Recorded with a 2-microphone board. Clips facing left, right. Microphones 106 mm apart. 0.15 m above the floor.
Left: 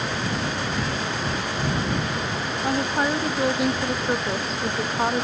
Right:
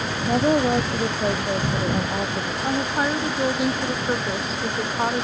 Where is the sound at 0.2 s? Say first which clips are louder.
Right 8 dB; 60° right (ahead or behind); by 2.5 s 55° right (ahead or behind).